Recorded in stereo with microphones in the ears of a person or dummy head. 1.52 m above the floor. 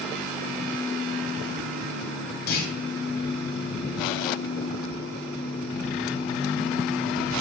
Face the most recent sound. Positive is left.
turn(degrees=60)  # may be behind; listen again after turning